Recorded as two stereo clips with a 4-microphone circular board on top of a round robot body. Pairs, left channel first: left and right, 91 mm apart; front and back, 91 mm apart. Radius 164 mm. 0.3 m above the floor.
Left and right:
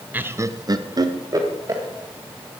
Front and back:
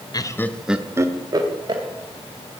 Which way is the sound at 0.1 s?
25° right.